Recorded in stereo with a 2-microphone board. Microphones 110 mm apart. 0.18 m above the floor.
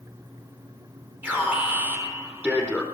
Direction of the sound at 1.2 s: 15° right (ahead or behind).